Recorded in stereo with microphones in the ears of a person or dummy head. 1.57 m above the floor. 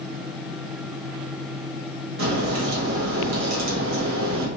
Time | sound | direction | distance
2.2 | a crack | 65° right (ahead or behind) | 0.9 m